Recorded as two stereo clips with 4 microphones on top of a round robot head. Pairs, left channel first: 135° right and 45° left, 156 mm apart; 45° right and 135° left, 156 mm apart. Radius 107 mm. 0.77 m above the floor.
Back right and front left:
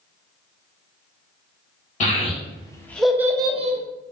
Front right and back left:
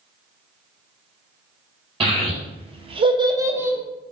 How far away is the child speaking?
About 0.9 m.